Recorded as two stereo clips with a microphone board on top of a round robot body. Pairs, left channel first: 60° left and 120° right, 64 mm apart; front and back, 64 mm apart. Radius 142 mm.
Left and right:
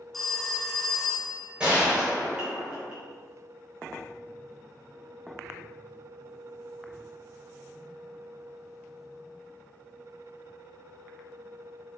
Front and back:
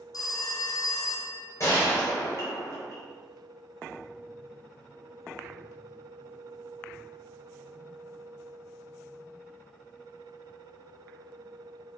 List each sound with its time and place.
0.1 s a phone ringing: 30° right, 1.5 m
1.6 s a gunshot: 45° right, 4 m